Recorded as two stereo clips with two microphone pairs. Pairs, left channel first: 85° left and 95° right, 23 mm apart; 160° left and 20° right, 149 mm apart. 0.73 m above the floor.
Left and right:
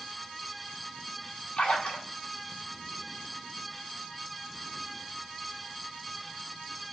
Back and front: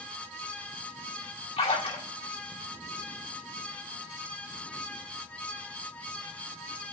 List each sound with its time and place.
1.6 s a splash: 115° left, 2 m